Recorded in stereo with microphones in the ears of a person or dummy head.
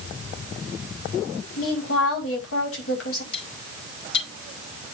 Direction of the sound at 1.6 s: 90° left.